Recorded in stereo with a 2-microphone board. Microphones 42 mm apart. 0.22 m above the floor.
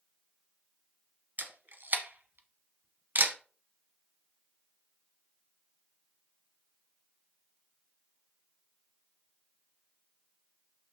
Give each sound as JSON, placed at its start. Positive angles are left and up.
{"t": 1.4, "sound": "a camera shutter", "side_deg": -55, "distance_m": 1.1}